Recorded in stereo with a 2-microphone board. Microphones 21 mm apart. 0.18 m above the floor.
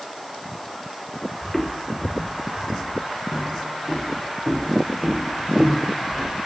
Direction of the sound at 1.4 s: 20° left (ahead or behind).